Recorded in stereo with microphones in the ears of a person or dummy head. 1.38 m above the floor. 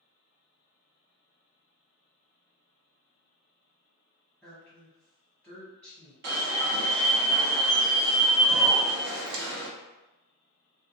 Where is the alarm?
50° right (ahead or behind), 0.7 m.